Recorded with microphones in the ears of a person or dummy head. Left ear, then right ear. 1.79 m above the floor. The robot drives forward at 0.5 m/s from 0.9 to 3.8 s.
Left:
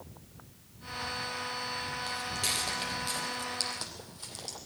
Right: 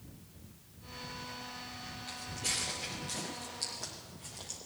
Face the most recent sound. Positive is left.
turn(degrees=65)  # may be behind; listen again after turning